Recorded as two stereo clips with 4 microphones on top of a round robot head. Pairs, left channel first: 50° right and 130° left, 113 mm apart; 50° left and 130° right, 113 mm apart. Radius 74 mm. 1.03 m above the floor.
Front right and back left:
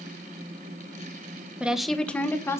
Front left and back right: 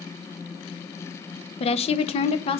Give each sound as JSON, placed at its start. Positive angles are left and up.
{"t": 1.6, "sound": "a woman speaking", "azimuth_deg": 50, "distance_m": 1.0}